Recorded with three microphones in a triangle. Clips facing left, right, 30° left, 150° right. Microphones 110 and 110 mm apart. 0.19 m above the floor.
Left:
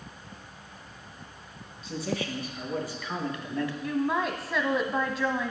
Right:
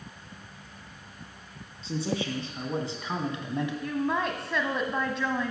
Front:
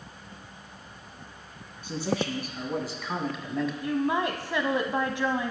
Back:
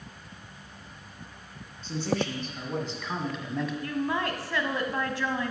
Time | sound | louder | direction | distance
1.8 | a man speaking | right 2 dB, even | 45° right | 2.5 m
3.8 | a woman speaking | left 2 dB, front 4 dB | 5° left | 1.0 m